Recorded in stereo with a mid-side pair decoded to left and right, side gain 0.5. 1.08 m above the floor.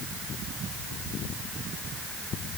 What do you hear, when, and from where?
Only background noise.